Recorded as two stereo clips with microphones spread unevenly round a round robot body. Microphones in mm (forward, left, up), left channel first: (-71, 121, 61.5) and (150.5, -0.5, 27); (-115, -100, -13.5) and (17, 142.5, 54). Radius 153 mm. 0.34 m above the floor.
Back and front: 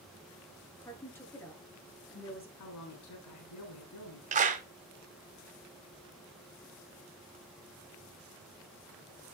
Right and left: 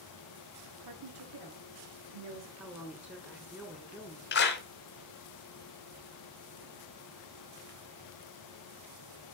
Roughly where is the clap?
Right.